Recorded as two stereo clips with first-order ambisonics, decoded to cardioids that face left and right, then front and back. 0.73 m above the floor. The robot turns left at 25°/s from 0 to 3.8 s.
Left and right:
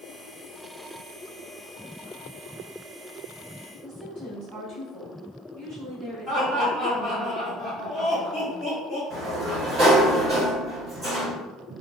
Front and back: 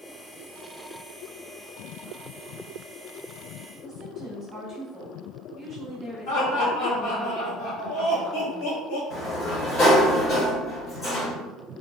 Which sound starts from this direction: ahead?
Laughter, at 6.3 s.